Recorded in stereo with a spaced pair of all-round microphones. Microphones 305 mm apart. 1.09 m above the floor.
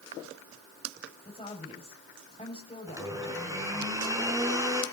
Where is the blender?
10° right (ahead or behind), 4.5 m.